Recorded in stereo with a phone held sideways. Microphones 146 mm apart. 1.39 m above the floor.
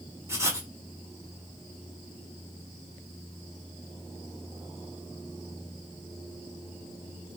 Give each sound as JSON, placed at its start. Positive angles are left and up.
{"t": 0.3, "sound": "writing", "side_deg": -20, "distance_m": 0.7}